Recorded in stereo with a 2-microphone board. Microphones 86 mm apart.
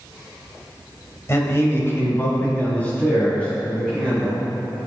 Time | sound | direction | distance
1.3 | a man speaking | 35° left (ahead or behind) | 1.0 m